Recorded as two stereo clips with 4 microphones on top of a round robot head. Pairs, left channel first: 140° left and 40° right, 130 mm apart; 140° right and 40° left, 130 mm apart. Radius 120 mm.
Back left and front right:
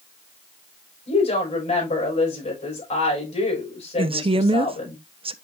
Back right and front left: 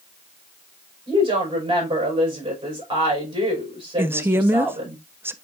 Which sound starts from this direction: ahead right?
A woman speaking, at 4.0 s.